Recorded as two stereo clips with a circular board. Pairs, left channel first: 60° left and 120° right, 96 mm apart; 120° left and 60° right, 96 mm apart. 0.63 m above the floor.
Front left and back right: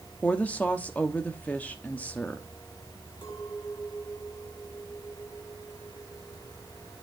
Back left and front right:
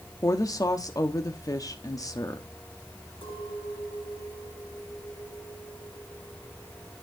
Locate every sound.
0.2 s a woman speaking: 125° left, 1.0 m
3.2 s a clink: 85° left, 8.5 m